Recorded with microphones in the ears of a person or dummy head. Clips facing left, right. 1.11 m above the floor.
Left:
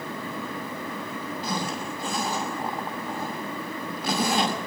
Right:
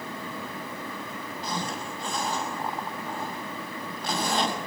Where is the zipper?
5° left (ahead or behind), 5 m.